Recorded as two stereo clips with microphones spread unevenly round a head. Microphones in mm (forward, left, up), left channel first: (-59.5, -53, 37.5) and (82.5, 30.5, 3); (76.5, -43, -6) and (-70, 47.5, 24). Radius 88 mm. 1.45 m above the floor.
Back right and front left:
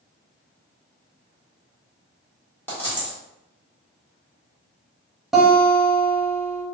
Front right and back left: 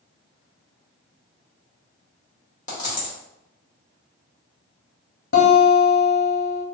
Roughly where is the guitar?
Ahead right.